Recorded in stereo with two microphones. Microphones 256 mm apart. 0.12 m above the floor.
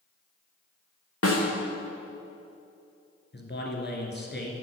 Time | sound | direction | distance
1.2 | a snare drum | 60° left (ahead or behind) | 2.5 m
3.3 | a man speaking | 45° left (ahead or behind) | 1.6 m